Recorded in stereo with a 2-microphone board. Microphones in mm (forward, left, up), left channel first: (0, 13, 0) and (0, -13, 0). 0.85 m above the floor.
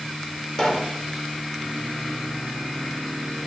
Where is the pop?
25° left (ahead or behind), 3 m.